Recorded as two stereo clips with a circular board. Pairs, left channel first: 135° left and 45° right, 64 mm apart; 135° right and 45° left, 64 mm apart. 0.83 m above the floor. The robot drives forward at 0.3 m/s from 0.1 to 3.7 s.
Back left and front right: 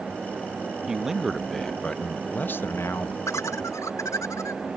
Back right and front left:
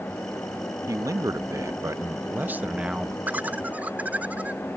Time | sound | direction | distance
0.9 | a man speaking | 35° left | ?
3.3 | laughter | 105° left | ?